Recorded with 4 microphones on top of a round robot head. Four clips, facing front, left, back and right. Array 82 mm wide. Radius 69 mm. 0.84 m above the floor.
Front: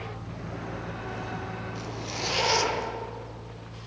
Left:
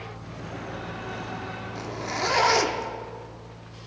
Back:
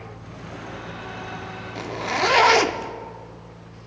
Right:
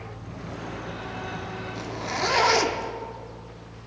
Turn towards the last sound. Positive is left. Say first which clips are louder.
# right 1 dB, back 10 dB
turn(degrees=180)